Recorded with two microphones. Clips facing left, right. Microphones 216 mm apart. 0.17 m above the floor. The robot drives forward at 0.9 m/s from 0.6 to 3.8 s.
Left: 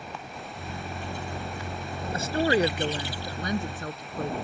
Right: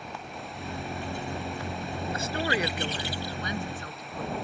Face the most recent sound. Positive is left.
turn(degrees=45)  # may be behind; listen again after turning